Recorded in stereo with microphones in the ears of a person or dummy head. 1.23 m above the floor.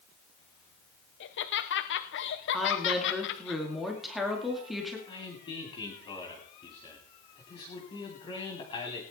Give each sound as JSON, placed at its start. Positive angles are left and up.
{"t": 1.2, "sound": "laughter", "side_deg": 50, "distance_m": 0.9}
{"t": 2.5, "sound": "a woman speaking", "side_deg": 5, "distance_m": 2.0}
{"t": 5.1, "sound": "a man speaking", "side_deg": 20, "distance_m": 2.5}